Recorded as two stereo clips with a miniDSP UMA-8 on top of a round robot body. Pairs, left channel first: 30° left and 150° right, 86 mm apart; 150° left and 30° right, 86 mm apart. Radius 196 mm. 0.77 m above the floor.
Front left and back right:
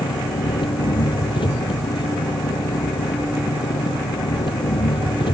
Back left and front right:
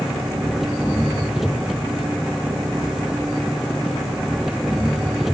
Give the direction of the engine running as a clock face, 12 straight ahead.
10 o'clock.